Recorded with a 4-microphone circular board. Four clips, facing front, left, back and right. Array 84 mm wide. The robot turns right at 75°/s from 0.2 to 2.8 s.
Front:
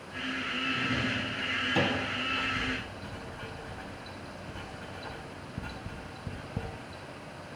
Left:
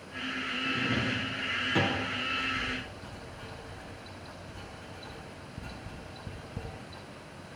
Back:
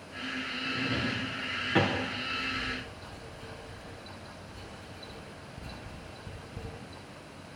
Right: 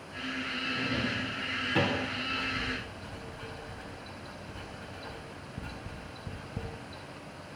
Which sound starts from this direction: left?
A drawer, at 0.7 s.